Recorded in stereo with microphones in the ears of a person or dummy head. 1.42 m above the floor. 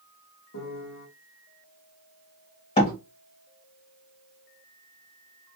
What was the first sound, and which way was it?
A piano, 85° left.